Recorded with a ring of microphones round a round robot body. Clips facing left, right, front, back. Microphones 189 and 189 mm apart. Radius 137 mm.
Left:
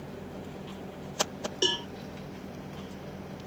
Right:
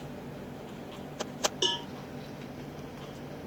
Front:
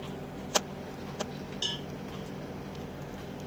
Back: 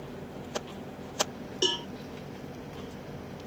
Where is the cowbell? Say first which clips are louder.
Left 3 dB, back 9 dB; 160° left.